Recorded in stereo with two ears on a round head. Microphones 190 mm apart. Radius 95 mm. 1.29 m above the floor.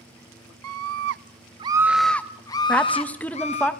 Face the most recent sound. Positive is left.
turn(degrees=5)  # may be behind; listen again after turning